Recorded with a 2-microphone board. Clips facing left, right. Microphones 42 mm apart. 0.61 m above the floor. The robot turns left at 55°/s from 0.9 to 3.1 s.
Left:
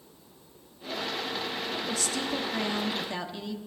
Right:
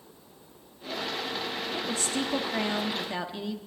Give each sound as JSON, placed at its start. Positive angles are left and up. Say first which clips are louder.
{"t": 1.7, "sound": "a woman speaking", "louder": "right 3 dB", "side_deg": -30, "distance_m": 1.1}